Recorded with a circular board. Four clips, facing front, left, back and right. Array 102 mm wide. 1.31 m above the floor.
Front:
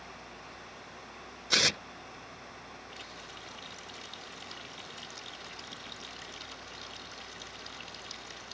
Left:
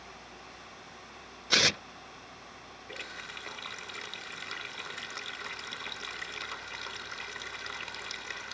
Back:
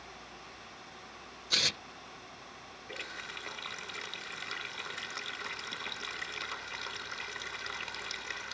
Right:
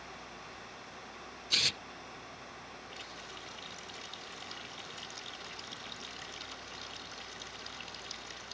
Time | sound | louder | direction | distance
1.5 | tearing paper | left 12 dB, front 7 dB | 60° left | ?
2.9 | a running tap | left 3 dB, back 3 dB | 135° left | ?